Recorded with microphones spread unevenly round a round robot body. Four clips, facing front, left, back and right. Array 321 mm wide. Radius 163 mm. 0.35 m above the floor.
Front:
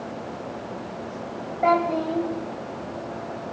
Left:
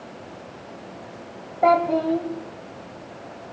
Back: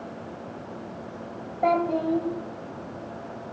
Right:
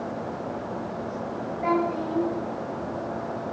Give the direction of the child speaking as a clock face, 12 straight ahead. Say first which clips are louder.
Left 7 dB, front 2 dB; 9 o'clock.